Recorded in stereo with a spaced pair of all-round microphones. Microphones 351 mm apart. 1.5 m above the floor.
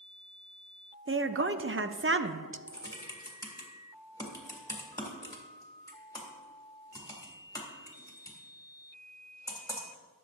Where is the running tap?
No running tap in this recording.